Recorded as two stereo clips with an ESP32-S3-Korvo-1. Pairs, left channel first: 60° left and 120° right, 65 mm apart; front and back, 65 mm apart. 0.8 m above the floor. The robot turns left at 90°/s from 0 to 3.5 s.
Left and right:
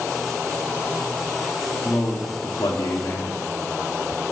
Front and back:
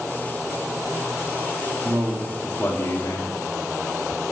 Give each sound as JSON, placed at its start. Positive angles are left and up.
{"t": 1.8, "sound": "a man speaking", "azimuth_deg": 130, "distance_m": 1.3}